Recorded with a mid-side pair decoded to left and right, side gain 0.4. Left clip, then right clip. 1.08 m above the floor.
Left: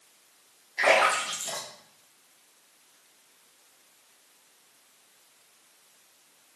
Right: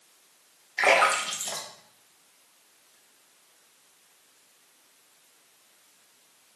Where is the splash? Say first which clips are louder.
Right 1 dB; 45° right, 1.1 m.